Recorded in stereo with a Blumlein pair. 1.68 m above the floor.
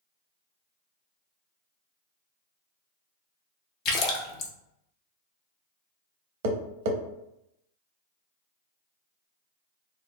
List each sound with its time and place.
3.9 s a splash: 35° left, 0.6 m
6.4 s tapping: 50° right, 0.6 m